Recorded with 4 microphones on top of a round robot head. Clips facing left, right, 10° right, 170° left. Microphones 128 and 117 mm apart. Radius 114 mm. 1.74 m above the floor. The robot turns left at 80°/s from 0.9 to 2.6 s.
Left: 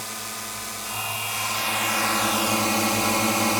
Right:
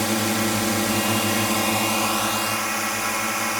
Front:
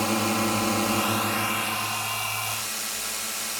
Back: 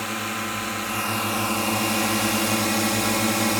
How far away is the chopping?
I don't hear chopping.